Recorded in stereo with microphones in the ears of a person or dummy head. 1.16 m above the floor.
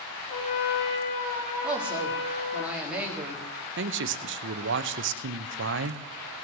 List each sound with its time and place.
0.3 s a trumpet: 90° left, 5 m
1.6 s a woman speaking: 10° right (ahead or behind), 2.5 m
3.8 s a man speaking: 65° right (ahead or behind), 0.8 m